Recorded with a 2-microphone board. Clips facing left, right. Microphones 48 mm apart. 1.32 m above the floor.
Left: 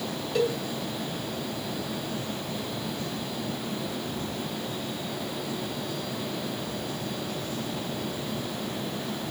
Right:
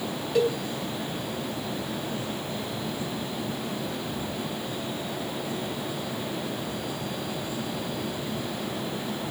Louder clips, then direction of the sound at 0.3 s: Right 2 dB; 10° right (ahead or behind).